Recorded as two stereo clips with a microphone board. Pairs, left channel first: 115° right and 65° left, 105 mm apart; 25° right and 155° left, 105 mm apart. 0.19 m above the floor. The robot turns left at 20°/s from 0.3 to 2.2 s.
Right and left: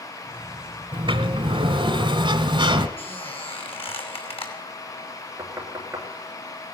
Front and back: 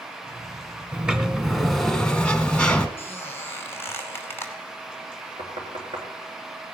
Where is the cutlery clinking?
I don't hear cutlery clinking.